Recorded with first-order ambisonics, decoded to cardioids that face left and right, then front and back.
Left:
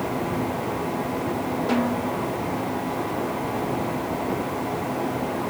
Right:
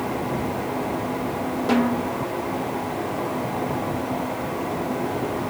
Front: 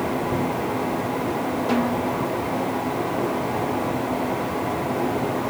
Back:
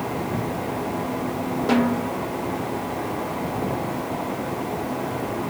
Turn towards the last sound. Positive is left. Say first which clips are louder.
# right 4 dB, back 3 dB
turn(degrees=-145)